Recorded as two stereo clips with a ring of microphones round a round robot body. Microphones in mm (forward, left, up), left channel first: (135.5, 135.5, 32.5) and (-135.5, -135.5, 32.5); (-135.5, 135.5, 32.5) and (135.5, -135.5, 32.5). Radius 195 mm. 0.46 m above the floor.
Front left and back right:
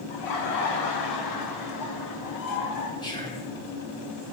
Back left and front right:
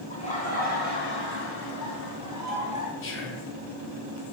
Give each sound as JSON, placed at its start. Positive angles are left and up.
{"t": 0.1, "sound": "laughter", "azimuth_deg": 60, "distance_m": 2.5}
{"t": 3.0, "sound": "whispering", "azimuth_deg": 115, "distance_m": 1.5}